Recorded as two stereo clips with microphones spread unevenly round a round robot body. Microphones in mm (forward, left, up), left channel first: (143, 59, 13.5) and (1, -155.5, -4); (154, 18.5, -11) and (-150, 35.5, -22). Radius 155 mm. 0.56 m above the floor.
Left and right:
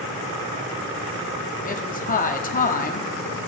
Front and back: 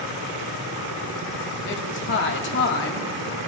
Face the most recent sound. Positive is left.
turn(degrees=20)